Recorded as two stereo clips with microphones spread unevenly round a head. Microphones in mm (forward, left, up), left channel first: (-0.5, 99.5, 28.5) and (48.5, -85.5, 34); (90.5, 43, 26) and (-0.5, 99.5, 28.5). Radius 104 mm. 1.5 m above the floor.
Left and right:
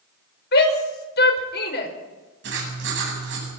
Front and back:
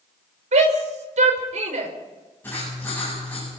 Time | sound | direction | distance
0.5 | a shout | 150° left | 5 m
2.4 | writing | 115° right | 9.5 m